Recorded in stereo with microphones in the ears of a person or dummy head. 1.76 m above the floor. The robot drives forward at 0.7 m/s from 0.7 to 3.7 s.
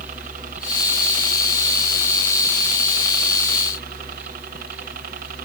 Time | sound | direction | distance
0.0 | a helicopter | 50° right (ahead or behind) | ?